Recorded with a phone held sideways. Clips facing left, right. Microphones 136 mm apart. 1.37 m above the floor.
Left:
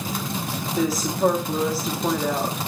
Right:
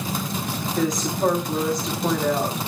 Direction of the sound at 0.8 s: 5° left (ahead or behind).